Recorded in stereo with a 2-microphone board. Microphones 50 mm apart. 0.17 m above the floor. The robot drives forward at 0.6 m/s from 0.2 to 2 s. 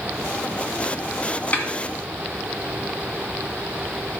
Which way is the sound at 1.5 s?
35° left (ahead or behind).